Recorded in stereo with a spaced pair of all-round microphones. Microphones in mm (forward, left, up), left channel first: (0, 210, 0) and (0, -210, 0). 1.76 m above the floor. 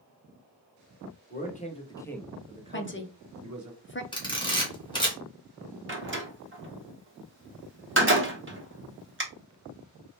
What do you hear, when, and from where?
1.3 s a man speaking: 25° left (ahead or behind), 1.1 m; by 3.7 s 50° right (ahead or behind), 0.8 m
2.7 s a woman speaking: 30° left (ahead or behind), 0.5 m
4.1 s a camera shutter: 10° left (ahead or behind), 1.5 m
5.9 s a door slam: 30° right (ahead or behind), 1.0 m